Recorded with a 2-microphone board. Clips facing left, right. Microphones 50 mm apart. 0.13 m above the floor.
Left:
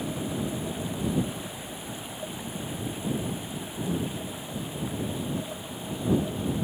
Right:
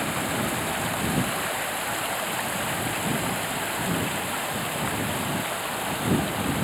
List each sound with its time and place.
0.0 s running water: 85° right